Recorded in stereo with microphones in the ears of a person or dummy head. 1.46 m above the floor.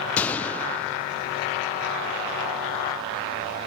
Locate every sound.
0.2 s a gunshot: 15° left (ahead or behind)